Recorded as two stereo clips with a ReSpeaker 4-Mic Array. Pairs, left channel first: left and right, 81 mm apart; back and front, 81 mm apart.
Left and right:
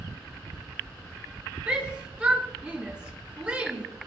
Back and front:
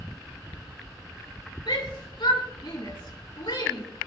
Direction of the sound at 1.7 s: 165° right.